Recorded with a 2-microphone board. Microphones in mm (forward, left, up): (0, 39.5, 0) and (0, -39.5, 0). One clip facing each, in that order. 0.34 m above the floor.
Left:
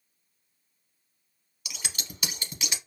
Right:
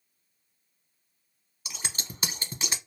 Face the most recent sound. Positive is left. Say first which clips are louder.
# right 1 dB
turn(degrees=-35)  # may be behind; listen again after turning